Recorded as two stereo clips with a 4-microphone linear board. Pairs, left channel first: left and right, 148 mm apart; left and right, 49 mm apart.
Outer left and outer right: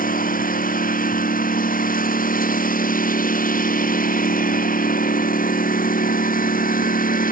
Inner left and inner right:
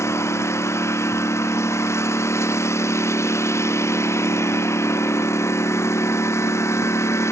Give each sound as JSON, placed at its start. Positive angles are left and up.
{"t": 0.0, "sound": "a lawn mower", "side_deg": 85}